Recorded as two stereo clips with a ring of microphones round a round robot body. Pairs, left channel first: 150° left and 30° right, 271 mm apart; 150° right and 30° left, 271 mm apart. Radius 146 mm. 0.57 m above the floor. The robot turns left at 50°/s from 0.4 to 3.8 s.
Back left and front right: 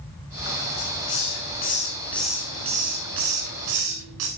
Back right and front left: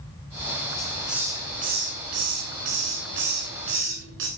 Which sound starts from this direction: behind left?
A hiss, at 0.8 s.